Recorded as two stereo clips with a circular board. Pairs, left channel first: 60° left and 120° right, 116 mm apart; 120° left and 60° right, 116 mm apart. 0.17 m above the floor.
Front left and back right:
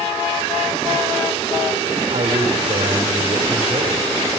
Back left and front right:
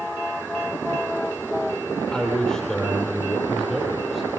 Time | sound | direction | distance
2.1 | a man speaking | 155° right | 6.5 m